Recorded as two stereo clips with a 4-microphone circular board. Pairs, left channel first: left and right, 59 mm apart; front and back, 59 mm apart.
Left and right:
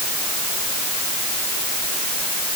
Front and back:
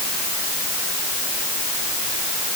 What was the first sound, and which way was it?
Only background noise.